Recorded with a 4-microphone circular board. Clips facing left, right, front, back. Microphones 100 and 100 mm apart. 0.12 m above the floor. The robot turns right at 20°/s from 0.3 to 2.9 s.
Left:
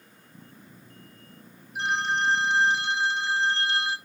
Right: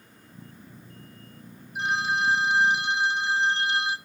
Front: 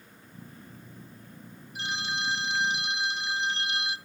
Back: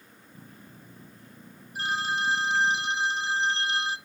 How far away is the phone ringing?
About 1.1 m.